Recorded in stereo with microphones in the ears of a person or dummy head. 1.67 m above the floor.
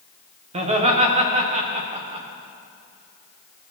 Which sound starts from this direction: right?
Laughter, at 0.5 s.